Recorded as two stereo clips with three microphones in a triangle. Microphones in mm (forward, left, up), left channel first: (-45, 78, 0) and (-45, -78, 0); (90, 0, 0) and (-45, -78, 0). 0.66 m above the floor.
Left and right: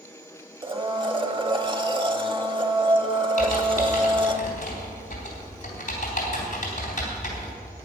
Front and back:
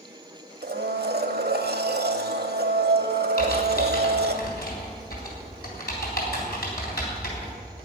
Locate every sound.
0.6 s a blender: 150° right, 1.0 m
3.4 s typing on a keyboard: 50° left, 3.5 m